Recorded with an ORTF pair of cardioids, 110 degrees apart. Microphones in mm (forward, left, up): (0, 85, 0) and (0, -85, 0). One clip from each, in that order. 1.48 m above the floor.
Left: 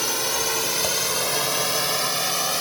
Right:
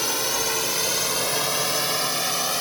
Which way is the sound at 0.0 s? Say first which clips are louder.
Even; 5° left.